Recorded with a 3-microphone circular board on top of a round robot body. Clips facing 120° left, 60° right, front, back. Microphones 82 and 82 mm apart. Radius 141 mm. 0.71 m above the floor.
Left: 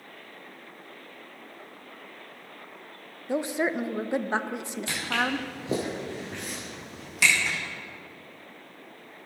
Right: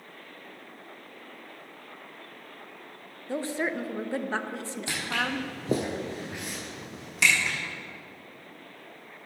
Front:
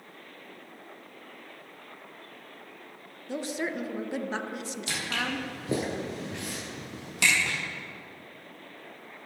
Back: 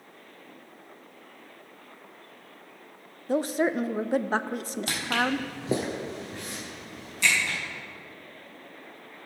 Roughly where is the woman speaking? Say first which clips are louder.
Left 3 dB, back 7 dB; behind.